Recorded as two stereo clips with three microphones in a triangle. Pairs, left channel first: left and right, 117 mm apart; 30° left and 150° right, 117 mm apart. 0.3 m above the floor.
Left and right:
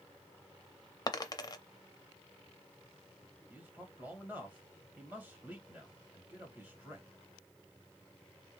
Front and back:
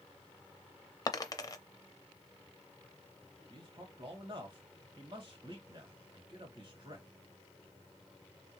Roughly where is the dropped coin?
Ahead left.